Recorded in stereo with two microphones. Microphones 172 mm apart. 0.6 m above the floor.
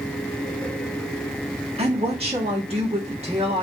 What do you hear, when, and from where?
1.8 s a woman speaking: 35° right (ahead or behind), 1.2 m